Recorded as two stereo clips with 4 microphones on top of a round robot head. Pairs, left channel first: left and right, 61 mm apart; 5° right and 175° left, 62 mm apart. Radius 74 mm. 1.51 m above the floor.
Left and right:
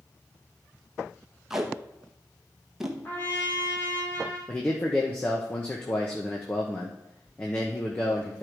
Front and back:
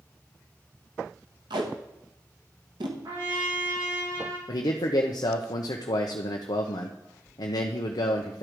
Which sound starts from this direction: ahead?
A man speaking, at 4.5 s.